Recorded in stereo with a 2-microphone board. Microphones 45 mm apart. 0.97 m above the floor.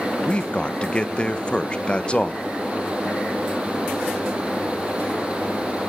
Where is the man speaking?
25° left (ahead or behind), 0.9 m.